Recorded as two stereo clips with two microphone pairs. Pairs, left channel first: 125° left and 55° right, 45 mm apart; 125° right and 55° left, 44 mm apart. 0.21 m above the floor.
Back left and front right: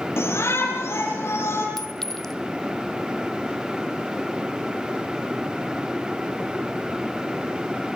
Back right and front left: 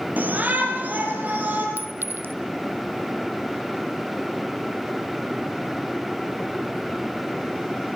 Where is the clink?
40° left, 1.2 m.